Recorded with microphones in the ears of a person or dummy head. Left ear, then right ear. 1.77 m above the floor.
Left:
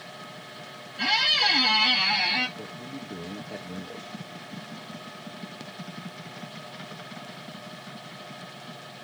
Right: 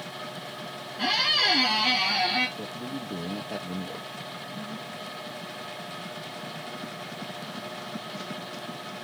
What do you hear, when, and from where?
1.0 s a squeak: 40° left (ahead or behind), 2.5 m
2.6 s a man speaking: 10° right (ahead or behind), 1.0 m